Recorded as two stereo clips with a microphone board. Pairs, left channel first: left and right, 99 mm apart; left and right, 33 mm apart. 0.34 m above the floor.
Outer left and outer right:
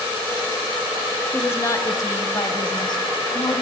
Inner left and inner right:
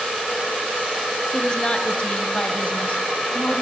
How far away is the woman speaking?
About 1.0 m.